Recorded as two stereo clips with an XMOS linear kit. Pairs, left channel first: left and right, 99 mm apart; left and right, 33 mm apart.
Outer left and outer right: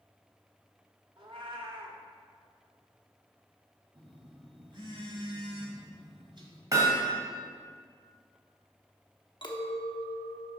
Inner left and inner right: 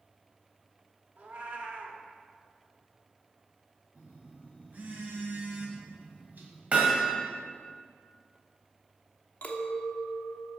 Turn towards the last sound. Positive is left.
turn(degrees=55)  # may be behind; listen again after turning